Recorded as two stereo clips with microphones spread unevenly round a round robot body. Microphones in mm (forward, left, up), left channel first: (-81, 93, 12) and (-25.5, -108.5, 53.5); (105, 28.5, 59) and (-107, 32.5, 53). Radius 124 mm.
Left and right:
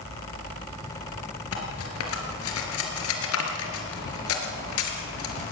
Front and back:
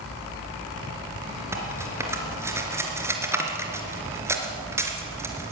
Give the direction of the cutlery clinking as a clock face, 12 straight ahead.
9 o'clock.